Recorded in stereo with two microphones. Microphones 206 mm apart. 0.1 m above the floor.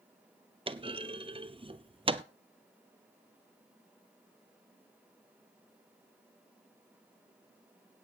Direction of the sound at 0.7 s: 30° right (ahead or behind).